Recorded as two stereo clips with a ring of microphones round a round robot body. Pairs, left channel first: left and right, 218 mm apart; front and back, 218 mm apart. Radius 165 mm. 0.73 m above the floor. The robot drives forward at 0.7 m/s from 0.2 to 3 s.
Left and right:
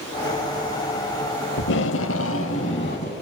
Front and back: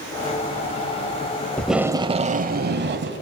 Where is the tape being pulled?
85° left, 0.7 m; by 3.2 s 150° left, 1.2 m.